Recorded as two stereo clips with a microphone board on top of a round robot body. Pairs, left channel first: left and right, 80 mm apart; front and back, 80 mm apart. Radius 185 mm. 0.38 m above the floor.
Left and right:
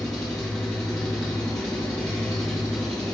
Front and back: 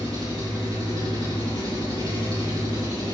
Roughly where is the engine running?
Ahead.